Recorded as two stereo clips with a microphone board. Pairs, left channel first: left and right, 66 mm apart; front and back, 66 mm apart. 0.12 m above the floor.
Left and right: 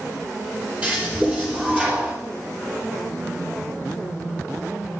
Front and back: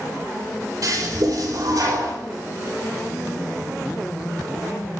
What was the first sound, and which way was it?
A toilet flushing, 160° right.